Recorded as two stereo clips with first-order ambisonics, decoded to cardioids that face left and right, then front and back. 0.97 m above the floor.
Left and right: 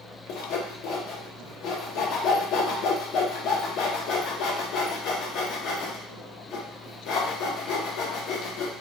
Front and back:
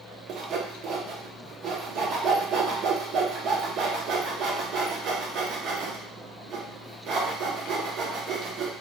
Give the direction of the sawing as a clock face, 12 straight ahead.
8 o'clock.